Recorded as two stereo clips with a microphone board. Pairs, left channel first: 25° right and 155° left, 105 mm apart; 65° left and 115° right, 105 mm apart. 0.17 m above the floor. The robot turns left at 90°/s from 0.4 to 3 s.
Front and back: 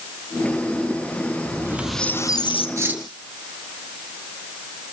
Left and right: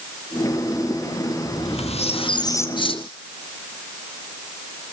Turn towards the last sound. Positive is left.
turn(degrees=80)